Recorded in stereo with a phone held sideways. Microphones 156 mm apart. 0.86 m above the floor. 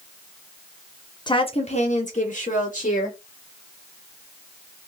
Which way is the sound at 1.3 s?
30° left (ahead or behind).